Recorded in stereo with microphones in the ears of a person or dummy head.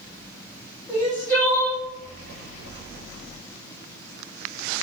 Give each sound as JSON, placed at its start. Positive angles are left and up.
{"t": 0.9, "sound": "crying", "side_deg": 15, "distance_m": 1.2}